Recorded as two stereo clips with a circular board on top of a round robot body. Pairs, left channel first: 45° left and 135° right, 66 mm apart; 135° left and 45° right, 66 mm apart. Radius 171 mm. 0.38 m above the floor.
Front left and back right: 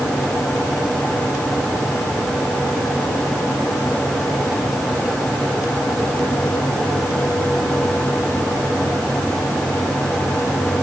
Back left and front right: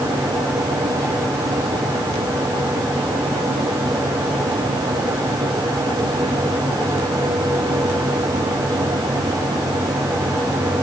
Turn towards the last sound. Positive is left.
No sound to turn to.